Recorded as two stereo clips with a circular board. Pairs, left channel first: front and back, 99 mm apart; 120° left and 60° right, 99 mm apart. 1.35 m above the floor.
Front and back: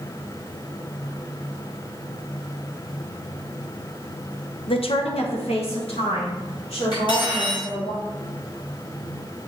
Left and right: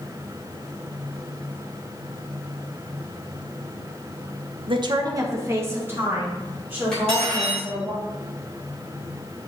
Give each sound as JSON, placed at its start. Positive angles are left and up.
{"t": 4.7, "sound": "a woman speaking", "azimuth_deg": -30, "distance_m": 0.7}
{"t": 6.9, "sound": "cutlery clinking", "azimuth_deg": 35, "distance_m": 3.0}